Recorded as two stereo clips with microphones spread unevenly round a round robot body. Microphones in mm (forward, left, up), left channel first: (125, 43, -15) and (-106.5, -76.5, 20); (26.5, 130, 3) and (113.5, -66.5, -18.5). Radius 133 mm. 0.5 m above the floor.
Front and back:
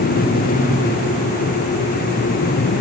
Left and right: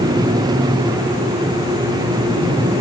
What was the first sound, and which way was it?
Only background noise.